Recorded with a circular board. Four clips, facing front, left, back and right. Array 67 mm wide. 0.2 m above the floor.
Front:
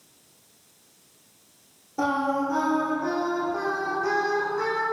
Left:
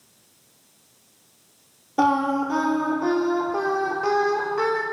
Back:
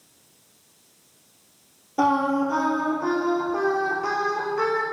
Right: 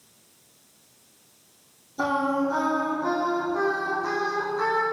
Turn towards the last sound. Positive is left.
turn(degrees=110)